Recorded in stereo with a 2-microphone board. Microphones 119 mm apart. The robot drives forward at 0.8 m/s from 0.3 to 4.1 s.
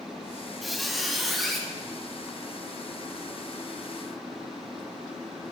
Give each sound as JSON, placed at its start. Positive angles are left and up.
{"t": 0.6, "sound": "a squeak", "side_deg": 0, "distance_m": 1.1}